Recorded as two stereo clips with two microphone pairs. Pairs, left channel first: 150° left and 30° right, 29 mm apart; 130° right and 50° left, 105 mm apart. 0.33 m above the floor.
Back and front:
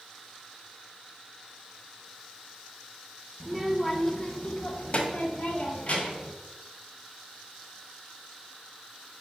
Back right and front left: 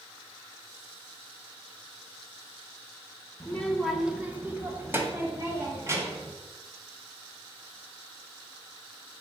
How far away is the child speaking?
About 0.8 m.